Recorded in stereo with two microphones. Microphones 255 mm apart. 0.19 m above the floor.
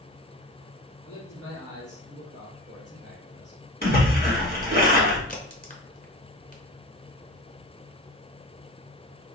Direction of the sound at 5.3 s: 35° left (ahead or behind).